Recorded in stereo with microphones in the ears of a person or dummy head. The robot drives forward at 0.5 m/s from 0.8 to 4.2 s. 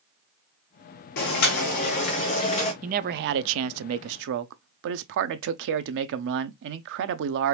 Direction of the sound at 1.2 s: 60° left (ahead or behind).